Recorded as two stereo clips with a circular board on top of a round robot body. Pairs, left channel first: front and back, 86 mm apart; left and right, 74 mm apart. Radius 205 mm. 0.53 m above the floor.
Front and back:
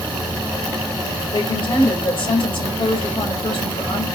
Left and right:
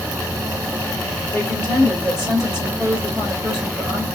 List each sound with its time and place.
1.3 s a woman speaking: 5° right, 2 m